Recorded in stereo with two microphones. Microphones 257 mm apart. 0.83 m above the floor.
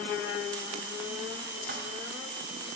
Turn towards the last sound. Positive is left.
turn(degrees=-45)  # may be behind; listen again after turning